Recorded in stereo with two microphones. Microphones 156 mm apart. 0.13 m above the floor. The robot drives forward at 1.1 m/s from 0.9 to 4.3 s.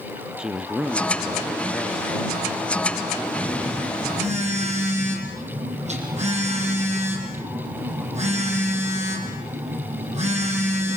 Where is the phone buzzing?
40° right (ahead or behind), 6.5 m; by 11.0 s 45° right (ahead or behind), 6 m.